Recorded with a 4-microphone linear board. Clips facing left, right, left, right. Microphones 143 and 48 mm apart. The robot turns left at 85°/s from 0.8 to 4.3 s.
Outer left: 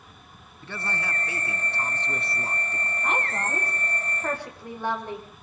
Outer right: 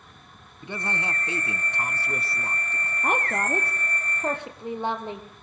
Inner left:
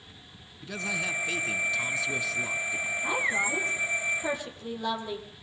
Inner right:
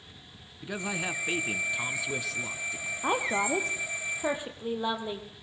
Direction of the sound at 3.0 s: 50° right (ahead or behind).